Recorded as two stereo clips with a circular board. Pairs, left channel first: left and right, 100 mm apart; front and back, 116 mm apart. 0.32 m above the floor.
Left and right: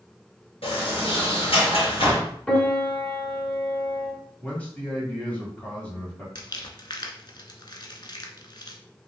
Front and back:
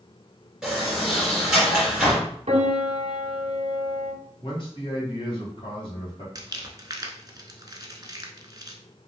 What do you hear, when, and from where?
0.6 s a sliding door: 95° left, 2.5 m
2.5 s a piano: 165° left, 0.8 m
4.4 s a man speaking: 15° left, 1.8 m
6.3 s crumpling: 125° left, 0.7 m